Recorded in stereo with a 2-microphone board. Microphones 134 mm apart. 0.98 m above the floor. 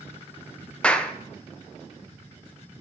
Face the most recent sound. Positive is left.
turn(degrees=10)  # may be behind; listen again after turning